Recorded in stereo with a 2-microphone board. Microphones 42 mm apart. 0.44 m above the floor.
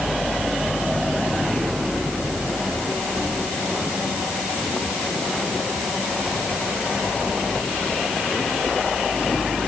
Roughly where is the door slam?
No door slam in this recording.